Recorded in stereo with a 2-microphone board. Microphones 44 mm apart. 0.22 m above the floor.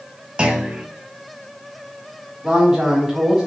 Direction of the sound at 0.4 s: 25° right (ahead or behind).